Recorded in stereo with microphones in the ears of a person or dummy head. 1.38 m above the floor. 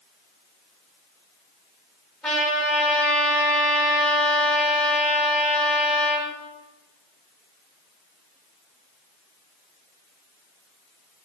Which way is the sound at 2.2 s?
5° left (ahead or behind).